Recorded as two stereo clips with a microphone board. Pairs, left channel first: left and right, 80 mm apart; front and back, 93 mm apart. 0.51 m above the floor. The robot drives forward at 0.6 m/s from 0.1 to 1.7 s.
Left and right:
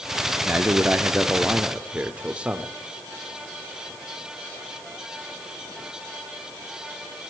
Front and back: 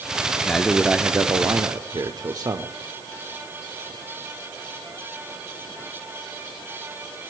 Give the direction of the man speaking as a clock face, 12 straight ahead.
2 o'clock.